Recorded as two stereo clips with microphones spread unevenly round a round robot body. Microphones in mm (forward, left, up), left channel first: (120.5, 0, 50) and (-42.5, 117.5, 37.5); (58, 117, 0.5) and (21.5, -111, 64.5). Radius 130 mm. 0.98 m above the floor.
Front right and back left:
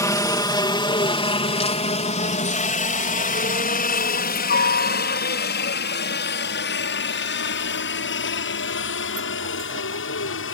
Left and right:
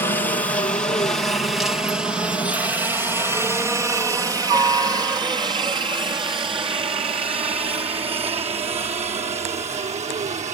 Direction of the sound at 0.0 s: 30° left.